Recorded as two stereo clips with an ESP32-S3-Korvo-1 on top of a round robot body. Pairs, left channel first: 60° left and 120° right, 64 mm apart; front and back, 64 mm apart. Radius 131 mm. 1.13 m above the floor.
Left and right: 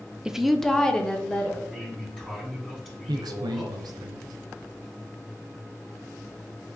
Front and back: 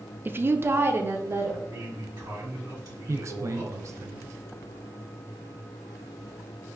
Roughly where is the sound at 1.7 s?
Behind left.